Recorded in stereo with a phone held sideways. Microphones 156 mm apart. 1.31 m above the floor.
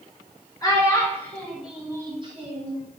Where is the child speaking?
25° left (ahead or behind), 1.3 m; by 2.8 s 50° right (ahead or behind), 0.8 m.